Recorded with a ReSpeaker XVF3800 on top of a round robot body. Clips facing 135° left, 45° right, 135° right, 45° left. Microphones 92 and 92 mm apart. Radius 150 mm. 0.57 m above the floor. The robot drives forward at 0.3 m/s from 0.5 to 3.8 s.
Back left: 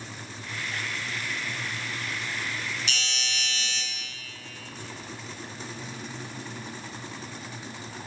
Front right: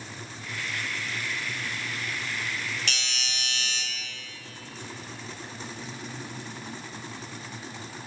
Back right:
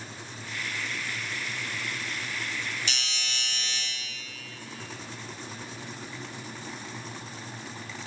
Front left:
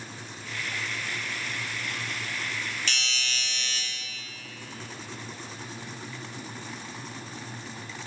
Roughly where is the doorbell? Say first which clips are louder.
Back left 1 dB, front left 2 dB; ahead right.